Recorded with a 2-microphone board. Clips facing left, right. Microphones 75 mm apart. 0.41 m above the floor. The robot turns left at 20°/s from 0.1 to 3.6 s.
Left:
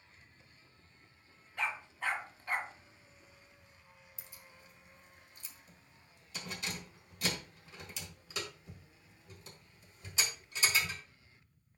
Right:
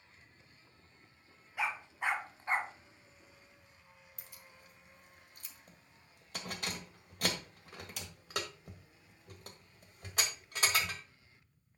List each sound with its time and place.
1.6 s a dog barking: 10° right (ahead or behind), 1.0 m; by 2.7 s 35° right (ahead or behind), 1.0 m
4.2 s keys jangling: 55° right (ahead or behind), 1.4 m